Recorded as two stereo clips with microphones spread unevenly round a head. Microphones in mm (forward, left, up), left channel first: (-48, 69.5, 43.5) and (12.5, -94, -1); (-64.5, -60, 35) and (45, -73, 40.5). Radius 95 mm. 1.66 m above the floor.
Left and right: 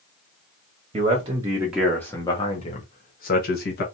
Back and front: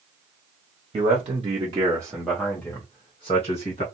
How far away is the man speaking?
About 0.8 m.